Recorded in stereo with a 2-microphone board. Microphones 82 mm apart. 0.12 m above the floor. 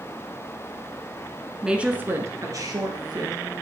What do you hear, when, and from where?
1.6 s a woman speaking: 5° right (ahead or behind), 1.2 m; by 3.5 s 65° right (ahead or behind), 2.5 m